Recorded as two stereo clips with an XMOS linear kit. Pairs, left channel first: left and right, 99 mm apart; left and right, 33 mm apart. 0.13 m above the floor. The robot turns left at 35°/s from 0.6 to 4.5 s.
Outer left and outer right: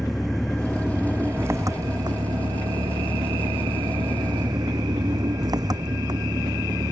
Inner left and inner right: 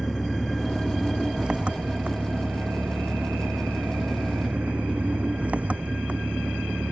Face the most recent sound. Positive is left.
turn(degrees=-135)